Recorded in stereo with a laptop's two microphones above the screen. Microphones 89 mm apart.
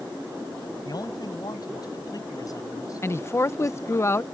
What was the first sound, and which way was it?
A man speaking, 50° left (ahead or behind).